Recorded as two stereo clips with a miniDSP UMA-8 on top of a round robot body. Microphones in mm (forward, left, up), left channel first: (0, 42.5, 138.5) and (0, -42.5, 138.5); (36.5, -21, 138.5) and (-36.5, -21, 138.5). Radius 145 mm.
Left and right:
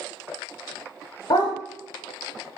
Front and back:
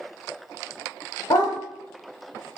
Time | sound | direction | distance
1.3 | a dog barking | 45° left | 0.6 m